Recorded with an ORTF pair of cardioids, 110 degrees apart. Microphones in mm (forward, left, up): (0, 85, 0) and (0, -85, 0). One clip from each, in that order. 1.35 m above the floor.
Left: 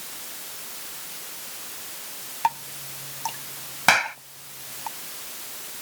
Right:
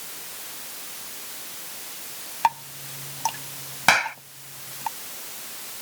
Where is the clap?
Straight ahead.